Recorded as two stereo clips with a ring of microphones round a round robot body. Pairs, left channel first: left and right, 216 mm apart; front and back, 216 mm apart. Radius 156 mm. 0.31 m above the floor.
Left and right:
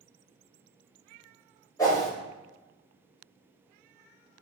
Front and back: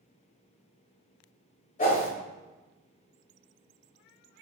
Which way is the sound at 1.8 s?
20° left.